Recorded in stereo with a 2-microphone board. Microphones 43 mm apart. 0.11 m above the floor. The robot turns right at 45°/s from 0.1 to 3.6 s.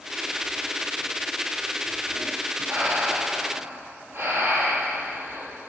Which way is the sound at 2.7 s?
115° right.